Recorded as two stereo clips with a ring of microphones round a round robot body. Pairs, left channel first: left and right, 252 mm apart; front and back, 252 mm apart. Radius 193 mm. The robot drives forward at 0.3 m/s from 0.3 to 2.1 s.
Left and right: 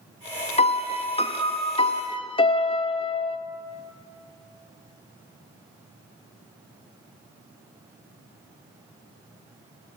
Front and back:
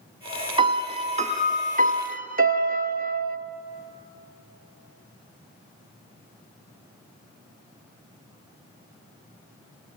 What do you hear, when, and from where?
0.6 s a piano: 130° left, 1.4 m; by 3.4 s 150° left, 1.6 m